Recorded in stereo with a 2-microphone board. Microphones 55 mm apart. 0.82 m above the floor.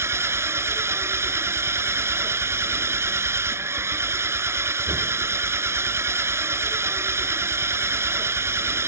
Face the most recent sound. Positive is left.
turn(degrees=-50)  # may be behind; listen again after turning